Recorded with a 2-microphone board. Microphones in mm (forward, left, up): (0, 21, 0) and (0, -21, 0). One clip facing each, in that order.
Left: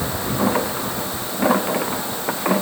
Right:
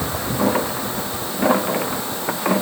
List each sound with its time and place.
Only background noise.